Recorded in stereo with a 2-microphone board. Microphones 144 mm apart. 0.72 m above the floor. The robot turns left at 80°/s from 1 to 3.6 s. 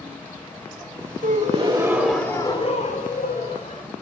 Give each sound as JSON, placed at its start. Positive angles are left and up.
{"t": 1.2, "sound": "a gasp", "azimuth_deg": -105, "distance_m": 1.4}